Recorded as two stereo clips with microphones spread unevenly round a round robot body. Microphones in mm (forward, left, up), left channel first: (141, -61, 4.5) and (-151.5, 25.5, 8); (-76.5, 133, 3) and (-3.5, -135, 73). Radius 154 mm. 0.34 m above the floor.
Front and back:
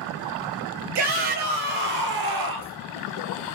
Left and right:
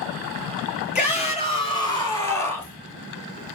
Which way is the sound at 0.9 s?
170° left.